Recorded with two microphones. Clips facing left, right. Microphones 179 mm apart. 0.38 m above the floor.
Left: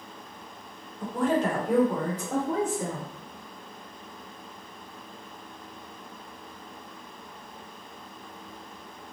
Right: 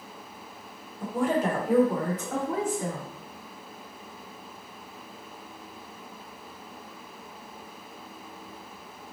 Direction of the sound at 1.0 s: 15° right (ahead or behind).